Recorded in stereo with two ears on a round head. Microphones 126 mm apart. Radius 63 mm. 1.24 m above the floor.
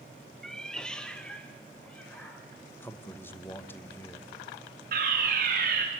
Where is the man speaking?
15° left (ahead or behind), 1.2 m.